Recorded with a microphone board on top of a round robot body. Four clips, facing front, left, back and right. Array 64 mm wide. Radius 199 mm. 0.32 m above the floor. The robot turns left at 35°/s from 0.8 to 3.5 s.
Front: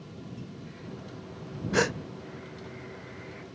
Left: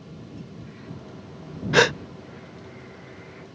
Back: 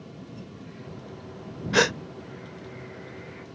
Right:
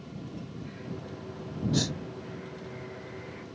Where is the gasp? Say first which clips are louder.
Left 14 dB, back 4 dB; 115° left; by 2.0 s 105° left.